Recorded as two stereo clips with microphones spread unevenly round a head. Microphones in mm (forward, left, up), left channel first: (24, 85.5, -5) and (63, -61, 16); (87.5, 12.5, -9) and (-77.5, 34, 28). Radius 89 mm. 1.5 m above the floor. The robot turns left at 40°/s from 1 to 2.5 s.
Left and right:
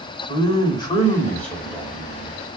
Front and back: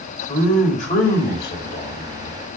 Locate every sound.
0.3 s a man speaking: 40° left, 1.9 m; by 2.4 s 15° right, 1.9 m